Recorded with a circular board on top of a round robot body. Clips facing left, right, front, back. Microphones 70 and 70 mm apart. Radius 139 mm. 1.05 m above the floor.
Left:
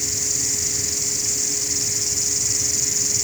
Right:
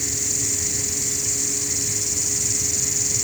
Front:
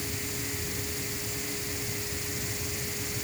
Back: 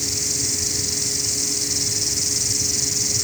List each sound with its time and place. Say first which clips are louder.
0.0 s an insect: right 1 dB, back 4 dB; 175° left